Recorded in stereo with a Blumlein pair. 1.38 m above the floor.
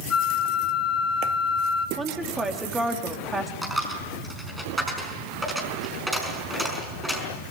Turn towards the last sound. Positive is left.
turn(degrees=0)